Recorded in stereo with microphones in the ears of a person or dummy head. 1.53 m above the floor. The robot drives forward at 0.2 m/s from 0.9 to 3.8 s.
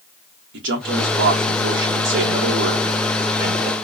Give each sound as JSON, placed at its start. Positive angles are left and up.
{"t": 0.5, "sound": "a man speaking", "side_deg": -75, "distance_m": 1.0}